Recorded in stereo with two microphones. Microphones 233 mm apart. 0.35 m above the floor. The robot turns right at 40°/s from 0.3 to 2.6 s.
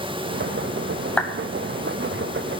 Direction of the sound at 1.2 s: 5° left (ahead or behind).